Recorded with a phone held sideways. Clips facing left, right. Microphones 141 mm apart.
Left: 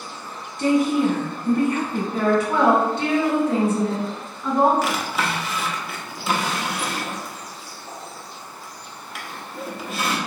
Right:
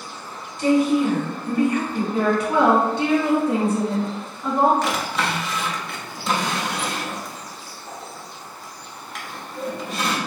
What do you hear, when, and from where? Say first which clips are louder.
0.6 s a woman speaking: right 1 dB; 55° left (ahead or behind), 1.6 m
2.1 s a woman speaking: even; 15° right (ahead or behind), 1.8 m
4.8 s a drawer: even; 5° left (ahead or behind), 0.7 m